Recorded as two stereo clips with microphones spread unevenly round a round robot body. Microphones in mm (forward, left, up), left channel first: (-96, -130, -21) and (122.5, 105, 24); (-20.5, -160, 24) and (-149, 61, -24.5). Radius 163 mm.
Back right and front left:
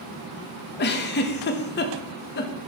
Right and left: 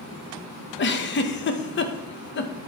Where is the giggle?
100° right, 0.7 m.